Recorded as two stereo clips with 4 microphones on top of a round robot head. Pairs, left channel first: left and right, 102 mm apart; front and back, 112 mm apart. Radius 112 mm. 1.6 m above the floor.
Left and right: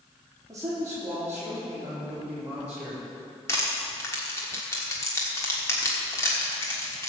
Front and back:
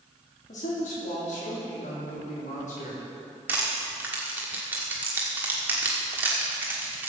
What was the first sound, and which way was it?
A man speaking, 25° right.